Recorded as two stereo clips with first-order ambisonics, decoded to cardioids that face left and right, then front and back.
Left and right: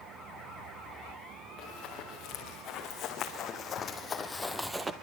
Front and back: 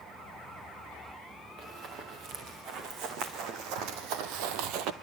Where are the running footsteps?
135° left, 5 m; by 4.9 s 160° right, 1.2 m.